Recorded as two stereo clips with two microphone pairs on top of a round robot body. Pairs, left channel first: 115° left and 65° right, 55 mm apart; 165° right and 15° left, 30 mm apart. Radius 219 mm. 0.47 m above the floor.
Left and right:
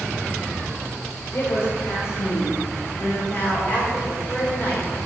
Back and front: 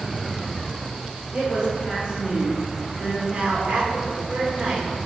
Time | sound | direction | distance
1.3 | a woman speaking | 90° left | 2.5 m
3.3 | a woman speaking | 65° left | 3.5 m